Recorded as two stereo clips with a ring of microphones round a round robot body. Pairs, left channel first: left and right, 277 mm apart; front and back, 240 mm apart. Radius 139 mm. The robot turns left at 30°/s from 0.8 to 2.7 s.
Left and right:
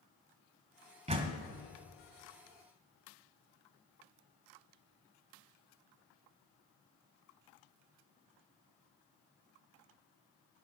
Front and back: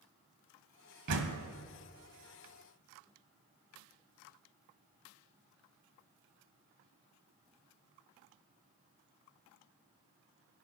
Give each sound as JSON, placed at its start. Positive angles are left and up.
{"t": 1.1, "sound": "a door slam", "azimuth_deg": -155, "distance_m": 1.3}